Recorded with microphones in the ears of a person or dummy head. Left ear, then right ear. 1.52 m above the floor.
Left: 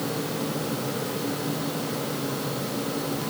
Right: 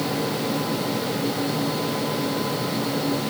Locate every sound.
Only background noise.